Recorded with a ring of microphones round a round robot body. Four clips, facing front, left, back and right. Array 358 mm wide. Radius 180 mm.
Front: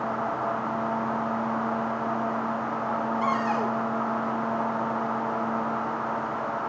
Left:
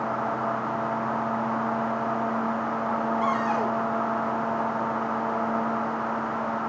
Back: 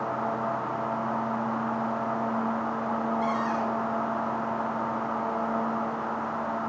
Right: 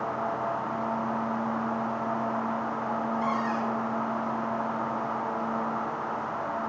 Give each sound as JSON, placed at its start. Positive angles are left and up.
{"t": 3.2, "sound": "a cupboard door", "azimuth_deg": 50, "distance_m": 2.0}